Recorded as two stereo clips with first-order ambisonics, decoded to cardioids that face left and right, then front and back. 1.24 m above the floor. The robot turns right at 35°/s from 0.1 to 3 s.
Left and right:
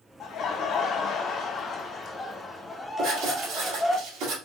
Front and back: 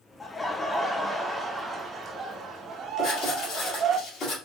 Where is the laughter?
75° left, 0.7 m; by 4.0 s 175° left, 0.7 m.